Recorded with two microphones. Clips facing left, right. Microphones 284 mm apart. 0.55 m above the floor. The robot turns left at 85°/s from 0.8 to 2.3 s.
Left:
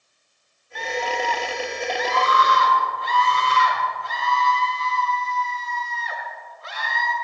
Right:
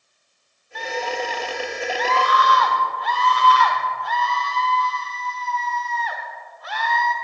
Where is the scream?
85° right, 1.6 m; by 7.1 s 145° left, 1.6 m.